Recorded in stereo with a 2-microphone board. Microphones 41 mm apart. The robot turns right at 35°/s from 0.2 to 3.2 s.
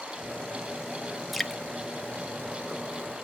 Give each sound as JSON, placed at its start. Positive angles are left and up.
{"t": 1.3, "sound": "dripping", "side_deg": 0, "distance_m": 1.0}